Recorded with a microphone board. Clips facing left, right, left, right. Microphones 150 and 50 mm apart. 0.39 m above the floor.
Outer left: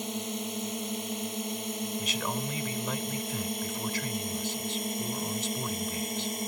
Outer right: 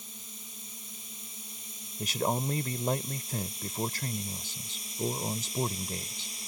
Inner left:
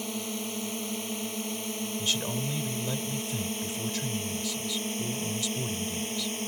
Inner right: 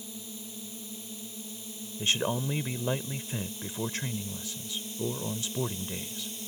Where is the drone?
70° left (ahead or behind); by 6.5 s 55° left (ahead or behind).